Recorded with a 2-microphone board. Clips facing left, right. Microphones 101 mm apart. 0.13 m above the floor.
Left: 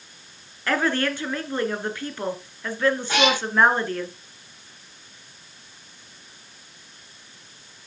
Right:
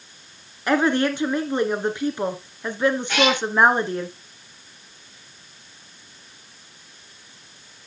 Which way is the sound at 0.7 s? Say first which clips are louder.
Right 4 dB; 20° right (ahead or behind).